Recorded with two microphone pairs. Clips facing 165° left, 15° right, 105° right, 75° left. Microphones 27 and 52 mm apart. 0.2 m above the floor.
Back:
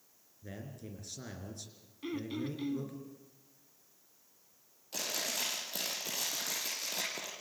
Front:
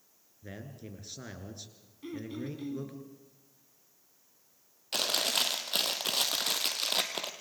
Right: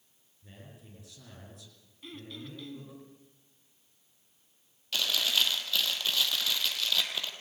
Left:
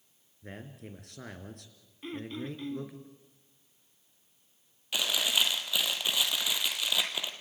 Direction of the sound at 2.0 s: 120° left.